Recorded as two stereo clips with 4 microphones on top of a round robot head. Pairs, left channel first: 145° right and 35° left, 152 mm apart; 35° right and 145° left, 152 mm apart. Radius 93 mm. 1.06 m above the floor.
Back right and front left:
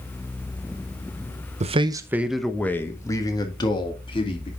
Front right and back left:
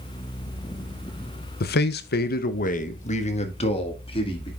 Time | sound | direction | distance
1.6 | a man speaking | 15° right | 0.7 m